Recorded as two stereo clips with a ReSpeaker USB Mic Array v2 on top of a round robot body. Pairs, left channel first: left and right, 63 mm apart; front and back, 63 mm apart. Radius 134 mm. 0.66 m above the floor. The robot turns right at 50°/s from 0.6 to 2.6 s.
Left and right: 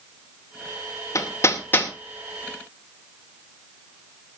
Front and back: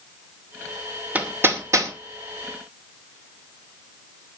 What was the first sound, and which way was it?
Hammering, 115° left.